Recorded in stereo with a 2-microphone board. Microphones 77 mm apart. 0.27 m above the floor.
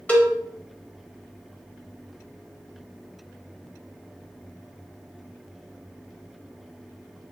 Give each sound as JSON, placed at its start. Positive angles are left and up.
{"t": 0.1, "sound": "a cowbell", "side_deg": 20, "distance_m": 0.9}